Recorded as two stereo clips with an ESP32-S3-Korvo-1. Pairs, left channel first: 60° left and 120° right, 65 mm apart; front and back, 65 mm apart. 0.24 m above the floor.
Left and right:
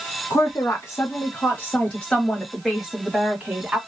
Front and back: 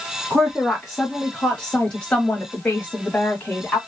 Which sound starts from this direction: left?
A woman speaking, at 0.3 s.